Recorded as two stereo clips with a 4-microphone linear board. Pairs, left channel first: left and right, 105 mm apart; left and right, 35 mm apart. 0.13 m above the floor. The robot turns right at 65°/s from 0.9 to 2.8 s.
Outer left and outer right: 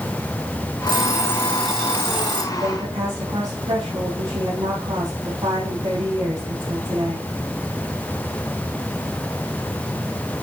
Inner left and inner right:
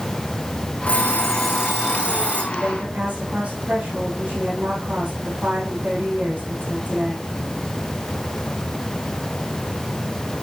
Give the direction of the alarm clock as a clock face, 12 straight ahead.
8 o'clock.